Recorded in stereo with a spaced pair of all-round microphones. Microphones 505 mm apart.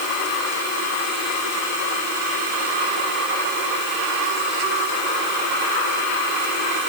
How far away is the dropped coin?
No dropped coin in this recording.